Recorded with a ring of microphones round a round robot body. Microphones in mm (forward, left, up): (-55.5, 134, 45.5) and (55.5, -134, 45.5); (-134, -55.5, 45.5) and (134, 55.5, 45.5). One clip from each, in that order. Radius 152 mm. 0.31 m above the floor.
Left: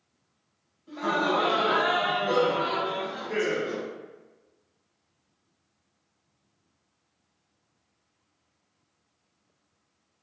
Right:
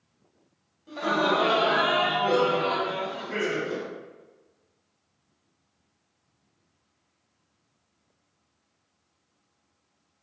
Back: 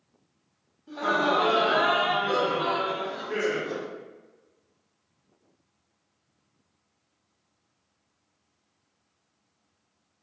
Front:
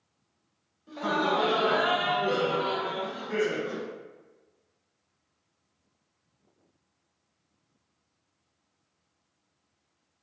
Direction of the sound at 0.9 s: 40° right.